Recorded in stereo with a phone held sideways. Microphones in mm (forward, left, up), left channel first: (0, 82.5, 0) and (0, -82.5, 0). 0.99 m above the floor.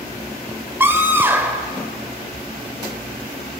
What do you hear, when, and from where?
0.8 s a scream: 15° right (ahead or behind), 4 m